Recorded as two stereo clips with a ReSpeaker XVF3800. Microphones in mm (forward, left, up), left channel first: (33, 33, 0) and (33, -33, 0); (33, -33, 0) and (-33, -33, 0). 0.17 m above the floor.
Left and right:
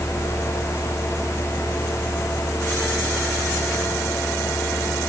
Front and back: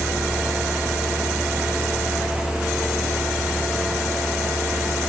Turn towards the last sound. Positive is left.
No sound to turn to.